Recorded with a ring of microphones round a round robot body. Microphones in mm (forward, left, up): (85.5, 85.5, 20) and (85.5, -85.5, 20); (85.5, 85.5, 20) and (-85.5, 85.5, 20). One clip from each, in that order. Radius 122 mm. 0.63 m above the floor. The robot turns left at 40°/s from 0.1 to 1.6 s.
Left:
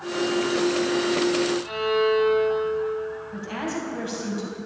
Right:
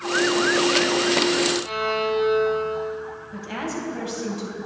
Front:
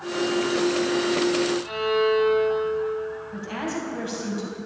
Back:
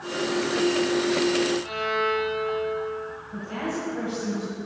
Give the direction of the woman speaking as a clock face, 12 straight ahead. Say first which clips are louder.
Right 4 dB, back 3 dB; 1 o'clock.